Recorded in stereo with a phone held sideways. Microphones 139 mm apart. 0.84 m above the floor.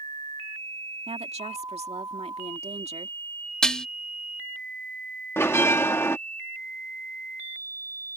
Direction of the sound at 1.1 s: 50° right (ahead or behind).